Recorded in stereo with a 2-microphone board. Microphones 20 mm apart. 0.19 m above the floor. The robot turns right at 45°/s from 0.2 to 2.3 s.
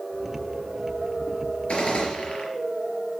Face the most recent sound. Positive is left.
turn(degrees=55)  # may be behind; listen again after turning